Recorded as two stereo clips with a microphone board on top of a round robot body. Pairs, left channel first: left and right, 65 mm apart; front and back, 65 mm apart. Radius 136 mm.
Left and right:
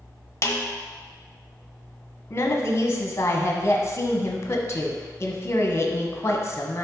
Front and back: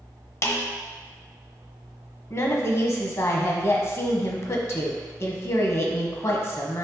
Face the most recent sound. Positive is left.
turn(degrees=40)